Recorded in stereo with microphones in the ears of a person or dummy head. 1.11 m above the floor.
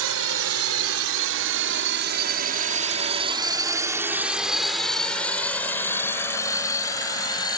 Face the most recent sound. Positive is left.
turn(degrees=25)  # may be behind; listen again after turning